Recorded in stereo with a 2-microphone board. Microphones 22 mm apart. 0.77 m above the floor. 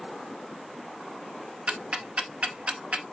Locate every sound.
1.7 s ticking: 60° right (ahead or behind), 0.7 m